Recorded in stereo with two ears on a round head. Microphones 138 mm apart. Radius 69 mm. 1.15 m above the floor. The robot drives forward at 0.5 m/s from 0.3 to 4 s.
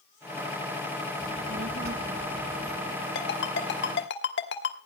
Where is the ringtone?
75° left (ahead or behind), 2.5 m; by 4.8 s 80° left, 2.5 m.